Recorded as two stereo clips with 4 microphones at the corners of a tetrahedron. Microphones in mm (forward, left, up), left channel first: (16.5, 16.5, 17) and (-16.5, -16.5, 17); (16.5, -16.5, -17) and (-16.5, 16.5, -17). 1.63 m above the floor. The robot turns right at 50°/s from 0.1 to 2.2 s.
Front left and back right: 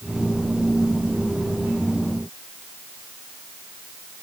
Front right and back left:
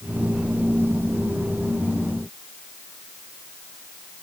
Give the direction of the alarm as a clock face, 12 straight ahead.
I don't hear an alarm.